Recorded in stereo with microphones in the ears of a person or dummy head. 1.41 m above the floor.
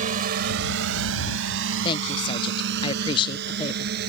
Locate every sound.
0.0 s a drone: 45° right (ahead or behind); by 4.1 s 65° right (ahead or behind)
1.8 s a woman speaking: 25° left (ahead or behind)